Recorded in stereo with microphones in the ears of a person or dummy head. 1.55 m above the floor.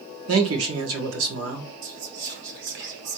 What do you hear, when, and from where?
0.3 s a man speaking: 80° right, 1.4 m
1.8 s whispering: 55° right (ahead or behind), 0.9 m